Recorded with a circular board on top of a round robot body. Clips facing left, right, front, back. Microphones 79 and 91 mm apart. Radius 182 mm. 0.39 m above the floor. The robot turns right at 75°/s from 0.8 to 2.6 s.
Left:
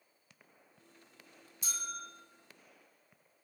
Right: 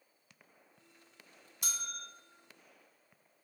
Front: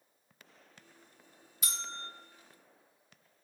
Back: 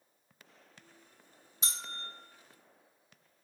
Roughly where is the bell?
Behind right.